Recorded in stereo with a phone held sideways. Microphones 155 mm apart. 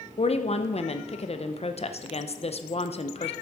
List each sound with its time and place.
0.2 s a woman speaking: 45° left (ahead or behind), 0.6 m